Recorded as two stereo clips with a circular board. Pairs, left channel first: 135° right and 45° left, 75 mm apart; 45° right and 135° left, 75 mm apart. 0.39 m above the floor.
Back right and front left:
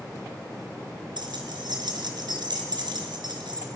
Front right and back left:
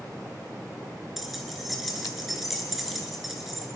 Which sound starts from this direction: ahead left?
Keys jangling, at 1.2 s.